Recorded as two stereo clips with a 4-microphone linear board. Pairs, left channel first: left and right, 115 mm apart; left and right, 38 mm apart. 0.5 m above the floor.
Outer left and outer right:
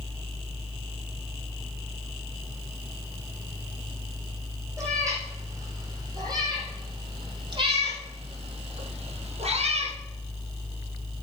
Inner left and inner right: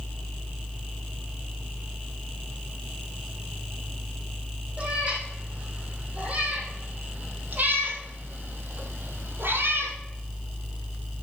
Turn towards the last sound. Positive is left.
turn(degrees=-75)  # may be behind; listen again after turning